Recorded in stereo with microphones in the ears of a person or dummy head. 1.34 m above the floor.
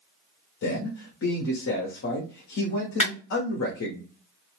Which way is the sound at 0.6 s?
70° left (ahead or behind).